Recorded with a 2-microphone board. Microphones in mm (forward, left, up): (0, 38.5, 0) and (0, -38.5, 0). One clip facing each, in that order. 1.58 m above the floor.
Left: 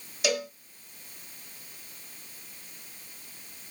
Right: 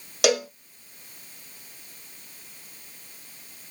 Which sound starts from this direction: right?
A cowbell, at 0.2 s.